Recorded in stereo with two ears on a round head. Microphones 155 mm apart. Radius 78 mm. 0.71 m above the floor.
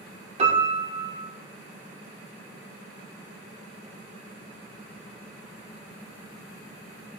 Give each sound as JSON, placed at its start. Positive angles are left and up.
{"t": 0.4, "sound": "a piano", "side_deg": -35, "distance_m": 2.0}